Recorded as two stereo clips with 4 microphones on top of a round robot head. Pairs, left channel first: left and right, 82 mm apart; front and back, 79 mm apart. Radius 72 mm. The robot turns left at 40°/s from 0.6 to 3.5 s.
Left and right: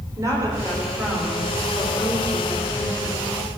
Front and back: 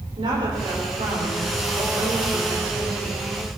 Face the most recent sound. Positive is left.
turn(degrees=105)